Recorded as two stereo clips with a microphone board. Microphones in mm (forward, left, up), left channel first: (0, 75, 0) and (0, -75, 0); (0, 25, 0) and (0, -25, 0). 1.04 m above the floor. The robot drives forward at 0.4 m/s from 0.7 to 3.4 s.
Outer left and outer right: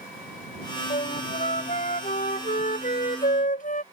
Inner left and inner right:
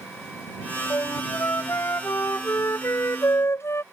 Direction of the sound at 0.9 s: 50° left (ahead or behind).